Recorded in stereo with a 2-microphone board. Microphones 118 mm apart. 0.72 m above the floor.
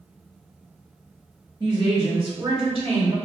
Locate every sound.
1.6 s a woman speaking: 35° right (ahead or behind), 1.4 m; by 3.1 s 60° right (ahead or behind), 1.8 m